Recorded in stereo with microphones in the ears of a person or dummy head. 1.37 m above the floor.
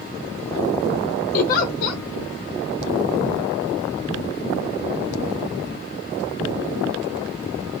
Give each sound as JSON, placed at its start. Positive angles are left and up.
{"t": 1.3, "sound": "a giggle", "side_deg": 50, "distance_m": 0.9}